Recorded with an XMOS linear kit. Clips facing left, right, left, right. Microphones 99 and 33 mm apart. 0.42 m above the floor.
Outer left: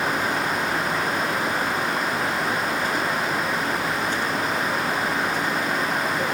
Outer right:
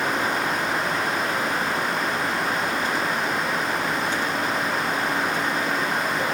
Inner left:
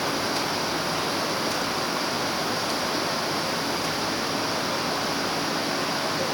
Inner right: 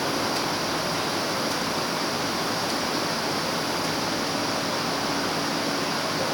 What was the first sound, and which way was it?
Only background noise.